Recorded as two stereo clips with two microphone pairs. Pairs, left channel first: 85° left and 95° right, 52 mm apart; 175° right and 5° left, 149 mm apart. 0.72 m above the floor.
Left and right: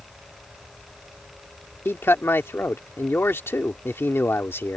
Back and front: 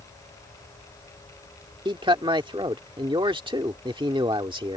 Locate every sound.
1.9 s a man speaking: 60° left